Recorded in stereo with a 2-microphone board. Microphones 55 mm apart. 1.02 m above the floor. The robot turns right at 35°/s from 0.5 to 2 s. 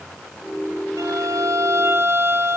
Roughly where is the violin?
Right.